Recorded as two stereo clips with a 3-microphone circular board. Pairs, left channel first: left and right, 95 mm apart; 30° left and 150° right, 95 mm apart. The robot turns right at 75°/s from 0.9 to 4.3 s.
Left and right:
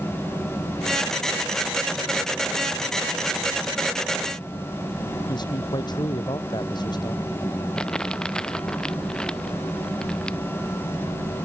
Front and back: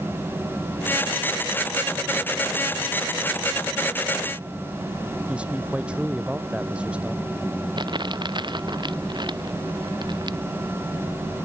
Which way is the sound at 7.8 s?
170° left.